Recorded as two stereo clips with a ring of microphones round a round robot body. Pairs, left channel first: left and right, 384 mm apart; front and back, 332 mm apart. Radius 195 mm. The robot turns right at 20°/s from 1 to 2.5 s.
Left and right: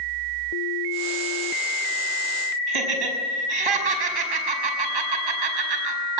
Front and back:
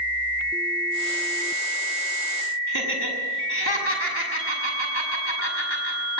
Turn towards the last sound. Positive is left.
turn(degrees=-60)